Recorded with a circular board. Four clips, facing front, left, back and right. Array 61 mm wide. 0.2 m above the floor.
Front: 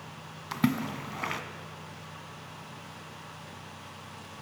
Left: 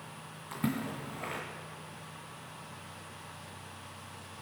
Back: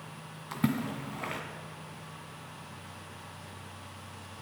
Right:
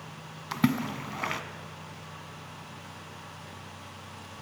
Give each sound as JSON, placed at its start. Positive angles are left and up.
{"t": 0.5, "sound": "a splash", "azimuth_deg": -65, "distance_m": 1.7}